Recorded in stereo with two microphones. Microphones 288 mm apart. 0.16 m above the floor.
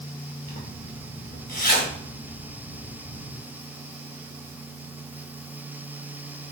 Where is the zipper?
30° left (ahead or behind), 0.9 m.